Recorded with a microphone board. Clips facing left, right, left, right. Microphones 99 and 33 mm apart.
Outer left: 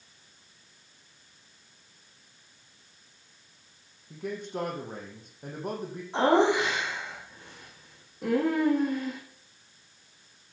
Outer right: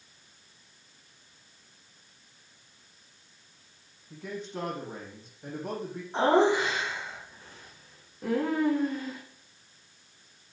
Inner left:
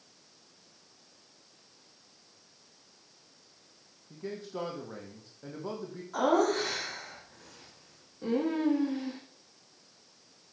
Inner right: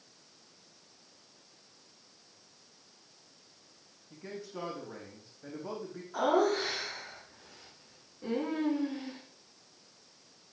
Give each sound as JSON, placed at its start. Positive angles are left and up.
{"t": 4.1, "sound": "a man speaking", "side_deg": 55, "distance_m": 4.0}
{"t": 6.1, "sound": "laughter", "side_deg": 75, "distance_m": 5.0}